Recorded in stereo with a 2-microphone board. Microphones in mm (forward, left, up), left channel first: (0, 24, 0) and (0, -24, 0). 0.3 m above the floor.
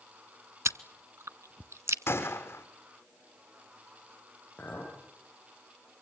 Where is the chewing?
80° right, 0.8 m.